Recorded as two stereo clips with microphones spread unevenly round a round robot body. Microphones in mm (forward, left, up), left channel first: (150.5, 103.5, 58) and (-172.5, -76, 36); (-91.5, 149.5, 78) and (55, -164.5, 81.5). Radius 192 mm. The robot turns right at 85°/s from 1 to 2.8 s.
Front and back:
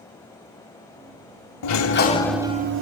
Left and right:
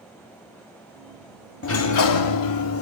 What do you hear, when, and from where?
1.6 s a sliding door: 60° left, 1.4 m; by 2.8 s 160° left, 1.4 m